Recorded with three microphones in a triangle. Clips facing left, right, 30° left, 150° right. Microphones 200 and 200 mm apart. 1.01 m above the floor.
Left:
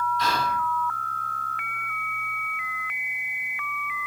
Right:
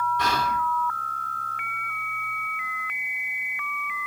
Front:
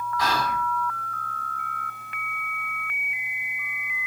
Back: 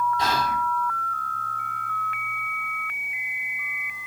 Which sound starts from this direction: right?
Whispering, at 0.2 s.